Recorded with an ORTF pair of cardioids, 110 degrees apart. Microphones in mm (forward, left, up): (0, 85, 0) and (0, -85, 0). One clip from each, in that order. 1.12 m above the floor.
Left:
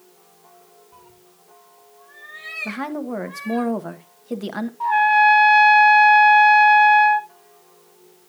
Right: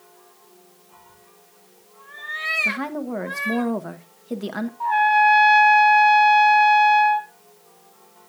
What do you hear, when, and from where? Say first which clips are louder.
0.9 s a cat meowing: even; 35° left, 1.2 m; by 3.6 s 80° right, 2 m
2.6 s a woman speaking: right 3 dB; 5° left, 1.1 m
4.8 s a trumpet: left 2 dB; 10° left, 2 m